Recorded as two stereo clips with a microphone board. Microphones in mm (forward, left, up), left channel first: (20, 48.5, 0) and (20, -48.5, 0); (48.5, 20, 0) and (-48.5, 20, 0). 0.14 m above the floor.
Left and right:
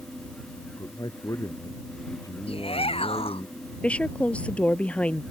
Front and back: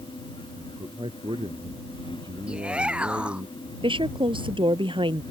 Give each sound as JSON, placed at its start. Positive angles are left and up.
{"t": 0.6, "sound": "a man speaking", "azimuth_deg": 145}
{"t": 2.5, "sound": "a shout", "azimuth_deg": 100}
{"t": 3.8, "sound": "a woman speaking", "azimuth_deg": 165}